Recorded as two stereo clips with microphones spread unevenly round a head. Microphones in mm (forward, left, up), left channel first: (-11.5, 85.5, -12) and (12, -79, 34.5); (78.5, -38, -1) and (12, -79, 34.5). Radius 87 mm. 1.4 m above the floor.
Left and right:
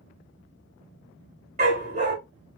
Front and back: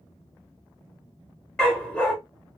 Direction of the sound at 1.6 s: 65° right.